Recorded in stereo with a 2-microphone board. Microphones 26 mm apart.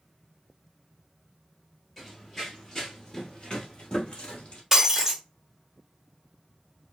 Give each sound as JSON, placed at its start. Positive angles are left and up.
{"t": 2.0, "sound": "running footsteps", "side_deg": 10, "distance_m": 1.2}
{"t": 4.7, "sound": "breaking glass", "side_deg": -15, "distance_m": 0.8}